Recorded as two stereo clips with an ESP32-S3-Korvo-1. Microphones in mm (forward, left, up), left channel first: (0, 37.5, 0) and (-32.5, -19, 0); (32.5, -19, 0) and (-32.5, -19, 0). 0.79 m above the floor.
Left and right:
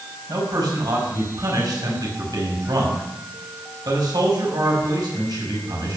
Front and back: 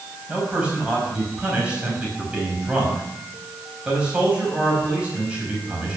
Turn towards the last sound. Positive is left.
turn(degrees=-105)